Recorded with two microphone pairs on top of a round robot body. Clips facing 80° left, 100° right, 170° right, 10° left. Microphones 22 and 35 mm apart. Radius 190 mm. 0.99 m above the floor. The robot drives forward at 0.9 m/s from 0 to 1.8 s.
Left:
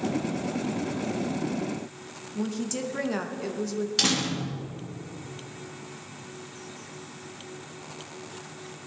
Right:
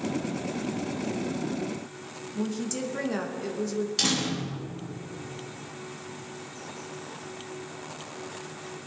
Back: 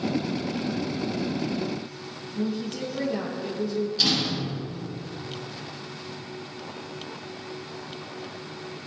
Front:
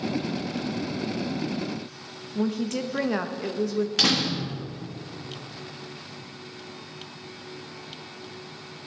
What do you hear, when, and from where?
2.4 s a woman speaking: straight ahead, 1.2 m
4.0 s a door slam: 10° left, 1.2 m